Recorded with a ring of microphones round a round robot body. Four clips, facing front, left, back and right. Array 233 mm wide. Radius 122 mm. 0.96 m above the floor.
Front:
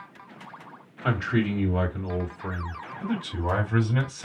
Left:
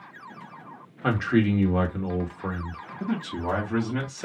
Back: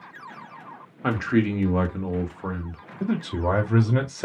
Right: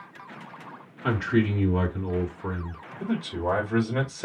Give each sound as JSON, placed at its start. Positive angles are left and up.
{"t": 1.0, "sound": "a man speaking", "azimuth_deg": 140, "distance_m": 1.4}
{"t": 3.0, "sound": "a man speaking", "azimuth_deg": 175, "distance_m": 2.5}